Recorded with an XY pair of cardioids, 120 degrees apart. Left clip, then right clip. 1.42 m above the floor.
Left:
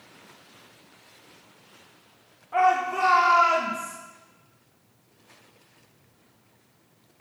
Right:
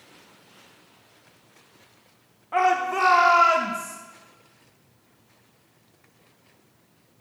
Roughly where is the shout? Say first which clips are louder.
Even; ahead right.